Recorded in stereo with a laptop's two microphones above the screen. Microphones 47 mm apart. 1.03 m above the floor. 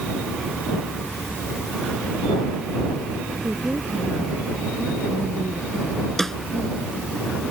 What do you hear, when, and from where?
3.4 s a woman speaking: 35° right (ahead or behind)
6.2 s a snare drum: 10° left (ahead or behind)